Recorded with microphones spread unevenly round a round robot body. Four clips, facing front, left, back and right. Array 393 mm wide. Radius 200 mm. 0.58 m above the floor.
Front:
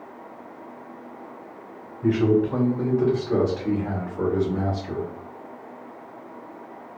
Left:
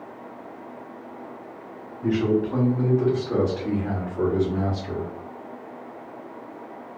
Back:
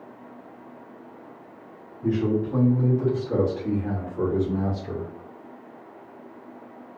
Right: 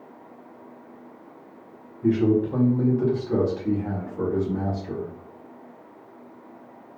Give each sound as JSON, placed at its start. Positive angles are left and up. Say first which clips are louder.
{"t": 2.0, "sound": "a man speaking", "louder": "right 2 dB, front 4 dB", "azimuth_deg": 15, "distance_m": 1.4}